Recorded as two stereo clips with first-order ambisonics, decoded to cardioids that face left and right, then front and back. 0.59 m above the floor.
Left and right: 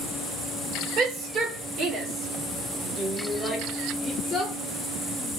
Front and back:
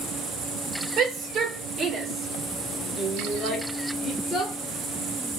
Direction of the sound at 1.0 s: 120° right.